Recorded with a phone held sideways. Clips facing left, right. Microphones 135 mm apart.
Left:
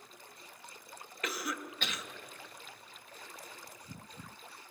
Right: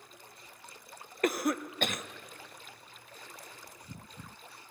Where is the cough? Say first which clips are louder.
Right 9 dB; 50° right (ahead or behind), 0.9 m.